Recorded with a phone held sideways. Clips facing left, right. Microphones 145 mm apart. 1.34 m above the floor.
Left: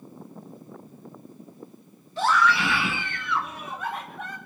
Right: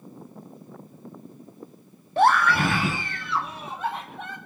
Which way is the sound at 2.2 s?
60° right (ahead or behind).